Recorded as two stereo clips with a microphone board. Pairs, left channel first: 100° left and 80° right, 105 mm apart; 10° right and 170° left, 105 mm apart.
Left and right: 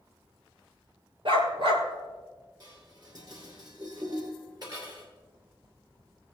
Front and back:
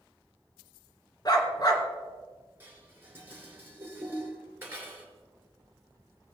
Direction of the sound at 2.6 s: 125° right.